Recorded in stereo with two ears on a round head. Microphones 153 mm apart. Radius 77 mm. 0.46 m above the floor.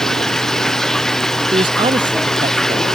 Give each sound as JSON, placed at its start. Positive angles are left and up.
{"t": 0.0, "sound": "running water", "side_deg": 0}
{"t": 1.5, "sound": "a man speaking", "side_deg": -30}